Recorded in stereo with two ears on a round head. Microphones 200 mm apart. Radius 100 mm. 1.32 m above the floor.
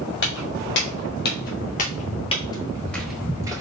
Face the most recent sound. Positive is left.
turn(degrees=-20)  # may be behind; listen again after turning